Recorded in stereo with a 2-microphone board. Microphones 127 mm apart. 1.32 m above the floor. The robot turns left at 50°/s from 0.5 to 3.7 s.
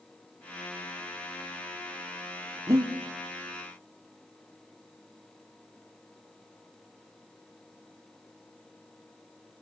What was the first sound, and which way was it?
Breathing, 30° right (ahead or behind).